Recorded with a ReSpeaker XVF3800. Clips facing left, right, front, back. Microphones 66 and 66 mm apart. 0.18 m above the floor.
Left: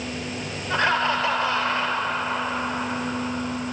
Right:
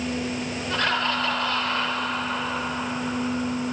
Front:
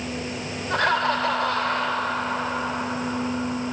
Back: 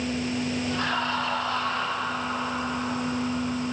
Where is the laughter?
25° left, 3 m.